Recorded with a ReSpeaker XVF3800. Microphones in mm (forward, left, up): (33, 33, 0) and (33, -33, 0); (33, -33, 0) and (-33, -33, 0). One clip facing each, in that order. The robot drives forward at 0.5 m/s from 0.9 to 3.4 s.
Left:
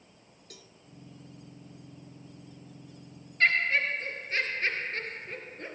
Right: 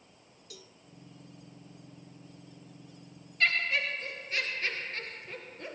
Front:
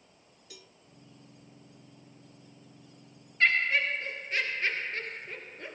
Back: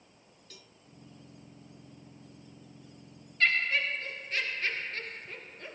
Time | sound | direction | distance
0.5 | a cowbell | 75° left | 1.7 m
3.4 | laughter | 65° left | 1.7 m